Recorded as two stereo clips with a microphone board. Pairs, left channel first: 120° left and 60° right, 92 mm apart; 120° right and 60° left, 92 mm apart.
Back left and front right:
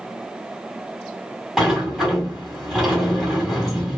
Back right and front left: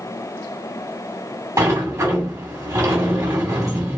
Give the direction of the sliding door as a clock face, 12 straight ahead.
11 o'clock.